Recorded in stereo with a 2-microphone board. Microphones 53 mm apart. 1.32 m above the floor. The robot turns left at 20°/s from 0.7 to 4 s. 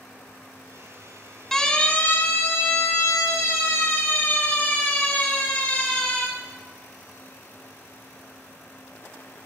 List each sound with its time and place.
1.5 s a siren: 5° left (ahead or behind), 2 m; by 6.2 s 20° left (ahead or behind), 6 m